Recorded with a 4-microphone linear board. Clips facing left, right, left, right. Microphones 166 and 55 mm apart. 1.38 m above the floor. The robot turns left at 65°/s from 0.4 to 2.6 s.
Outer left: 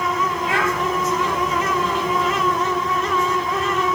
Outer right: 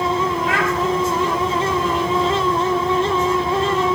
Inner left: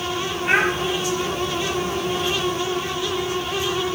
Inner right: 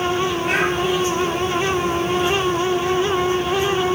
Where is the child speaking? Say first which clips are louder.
Outer right 1 dB, inner left 4 dB; 25° left (ahead or behind), 2.5 m; by 0.7 s 45° left (ahead or behind), 2.5 m.